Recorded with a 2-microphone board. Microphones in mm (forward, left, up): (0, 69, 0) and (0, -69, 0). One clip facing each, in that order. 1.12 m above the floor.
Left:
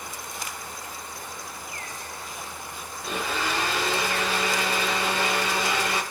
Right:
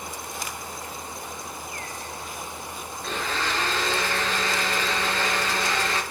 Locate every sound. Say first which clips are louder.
3.0 s a blender: left 1 dB; 10° left (ahead or behind), 6 m